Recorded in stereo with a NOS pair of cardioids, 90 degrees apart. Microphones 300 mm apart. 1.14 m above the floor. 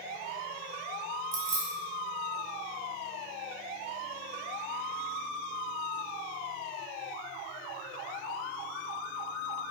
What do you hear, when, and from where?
1.3 s keys jangling: 70° right, 0.9 m